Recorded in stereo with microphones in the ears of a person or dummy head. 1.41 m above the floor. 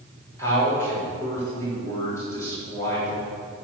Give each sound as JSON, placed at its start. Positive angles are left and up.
{"t": 0.4, "sound": "a man speaking", "side_deg": 15, "distance_m": 4.0}